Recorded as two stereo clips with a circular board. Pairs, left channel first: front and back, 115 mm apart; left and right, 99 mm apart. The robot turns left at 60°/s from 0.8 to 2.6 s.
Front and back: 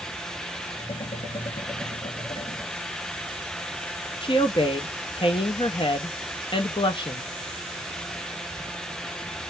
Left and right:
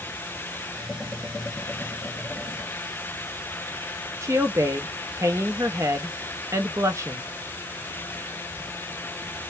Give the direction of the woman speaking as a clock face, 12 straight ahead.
1 o'clock.